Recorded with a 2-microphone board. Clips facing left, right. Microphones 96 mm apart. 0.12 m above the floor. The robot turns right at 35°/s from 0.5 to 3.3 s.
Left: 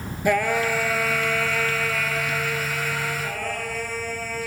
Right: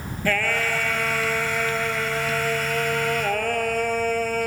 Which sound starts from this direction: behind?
Singing, at 0.2 s.